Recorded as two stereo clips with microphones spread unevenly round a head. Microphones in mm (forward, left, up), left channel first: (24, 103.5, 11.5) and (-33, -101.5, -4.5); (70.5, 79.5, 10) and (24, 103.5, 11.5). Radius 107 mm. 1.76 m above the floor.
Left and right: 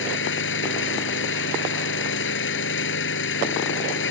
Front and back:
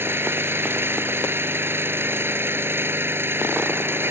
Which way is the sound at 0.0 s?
110° left.